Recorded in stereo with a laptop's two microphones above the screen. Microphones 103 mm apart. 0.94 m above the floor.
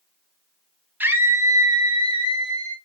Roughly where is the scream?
Centre.